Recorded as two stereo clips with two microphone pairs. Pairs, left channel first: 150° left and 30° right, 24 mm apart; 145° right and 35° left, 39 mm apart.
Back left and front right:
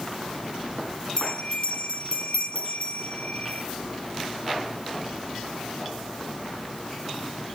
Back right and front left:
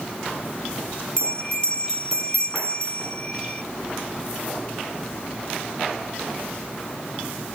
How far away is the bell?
About 2 m.